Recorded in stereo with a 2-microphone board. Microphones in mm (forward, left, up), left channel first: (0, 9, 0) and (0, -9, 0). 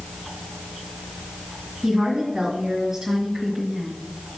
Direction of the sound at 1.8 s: 25° right (ahead or behind).